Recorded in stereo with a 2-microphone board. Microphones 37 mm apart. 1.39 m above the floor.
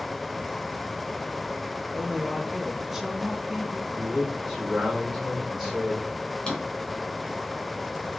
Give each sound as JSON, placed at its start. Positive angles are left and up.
{"t": 1.9, "sound": "a woman speaking", "side_deg": -5, "distance_m": 2.0}
{"t": 4.0, "sound": "a man speaking", "side_deg": -10, "distance_m": 4.5}
{"t": 6.5, "sound": "a drawer", "side_deg": 25, "distance_m": 3.5}